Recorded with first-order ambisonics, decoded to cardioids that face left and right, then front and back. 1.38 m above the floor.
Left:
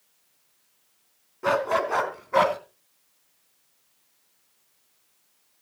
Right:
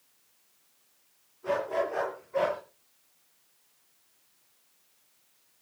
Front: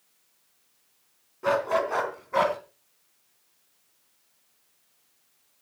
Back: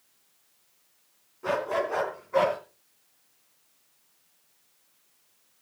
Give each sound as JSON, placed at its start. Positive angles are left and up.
{"t": 1.4, "sound": "a dog barking", "azimuth_deg": 65, "distance_m": 3.0}